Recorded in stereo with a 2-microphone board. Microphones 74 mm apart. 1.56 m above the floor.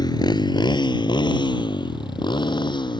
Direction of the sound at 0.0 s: 65° left (ahead or behind).